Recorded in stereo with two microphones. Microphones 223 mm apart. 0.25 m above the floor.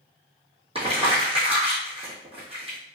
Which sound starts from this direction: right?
Crumpling, at 0.8 s.